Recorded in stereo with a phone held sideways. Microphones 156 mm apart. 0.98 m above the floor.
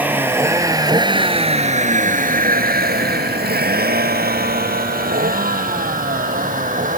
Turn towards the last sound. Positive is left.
turn(degrees=-55)  # may be behind; listen again after turning